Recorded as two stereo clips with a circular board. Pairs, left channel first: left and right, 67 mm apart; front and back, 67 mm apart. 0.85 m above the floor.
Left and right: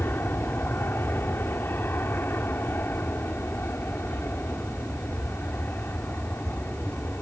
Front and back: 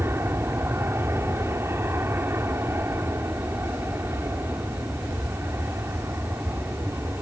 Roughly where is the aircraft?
Behind left.